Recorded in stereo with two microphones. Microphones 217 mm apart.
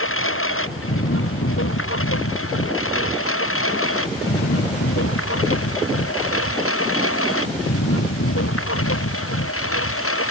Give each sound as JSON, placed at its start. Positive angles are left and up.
{"t": 0.0, "sound": "a lawn mower", "side_deg": 75}